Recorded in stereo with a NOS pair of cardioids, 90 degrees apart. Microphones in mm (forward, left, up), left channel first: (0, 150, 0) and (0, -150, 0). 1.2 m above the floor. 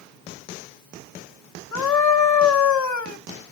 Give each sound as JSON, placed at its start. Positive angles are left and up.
{"t": 1.7, "sound": "a scream", "azimuth_deg": 65, "distance_m": 1.0}